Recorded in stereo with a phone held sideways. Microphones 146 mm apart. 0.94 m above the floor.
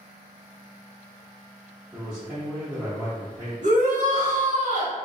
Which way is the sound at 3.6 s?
60° right (ahead or behind).